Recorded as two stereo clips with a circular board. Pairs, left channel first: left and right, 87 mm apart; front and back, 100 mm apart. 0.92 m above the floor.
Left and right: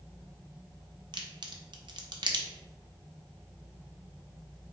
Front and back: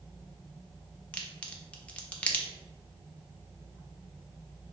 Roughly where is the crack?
Right.